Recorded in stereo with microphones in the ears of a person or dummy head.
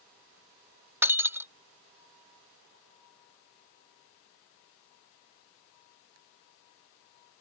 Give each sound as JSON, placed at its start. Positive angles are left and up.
{"t": 1.0, "sound": "breaking glass", "side_deg": -10}